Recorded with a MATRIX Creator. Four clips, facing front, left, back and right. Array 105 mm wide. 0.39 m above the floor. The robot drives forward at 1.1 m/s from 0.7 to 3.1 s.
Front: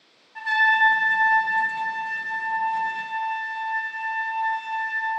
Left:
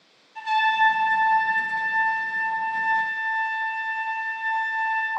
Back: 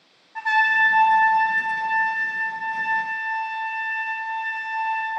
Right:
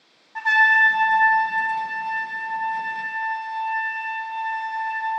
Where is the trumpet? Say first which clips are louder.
Right 2 dB, back 1 dB; 110° right, 0.5 m; by 5.1 s 170° right, 3 m.